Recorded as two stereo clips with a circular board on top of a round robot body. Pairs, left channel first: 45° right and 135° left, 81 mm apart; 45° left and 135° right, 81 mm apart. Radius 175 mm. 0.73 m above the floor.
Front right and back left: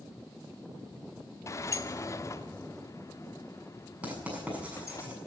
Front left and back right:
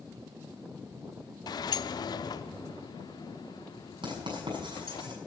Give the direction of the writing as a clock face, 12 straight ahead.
5 o'clock.